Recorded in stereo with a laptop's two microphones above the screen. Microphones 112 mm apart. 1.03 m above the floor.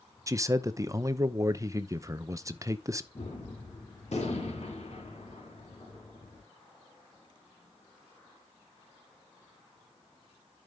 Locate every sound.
0.3 s a man speaking: 30° right (ahead or behind), 0.7 m
3.1 s a gunshot: 75° left (ahead or behind), 3.5 m